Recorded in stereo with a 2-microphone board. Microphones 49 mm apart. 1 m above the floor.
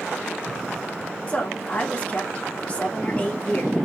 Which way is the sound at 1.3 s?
30° left (ahead or behind).